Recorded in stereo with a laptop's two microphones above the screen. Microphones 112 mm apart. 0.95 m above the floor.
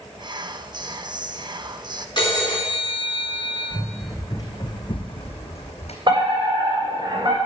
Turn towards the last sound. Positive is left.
turn(degrees=-45)  # may be behind; listen again after turning